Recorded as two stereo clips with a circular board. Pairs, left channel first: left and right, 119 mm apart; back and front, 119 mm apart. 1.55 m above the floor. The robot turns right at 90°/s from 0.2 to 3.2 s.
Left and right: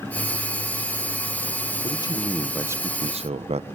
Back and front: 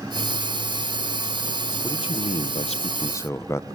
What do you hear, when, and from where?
1.8 s a man speaking: 125° left, 1.2 m; by 3.6 s 115° right, 1.2 m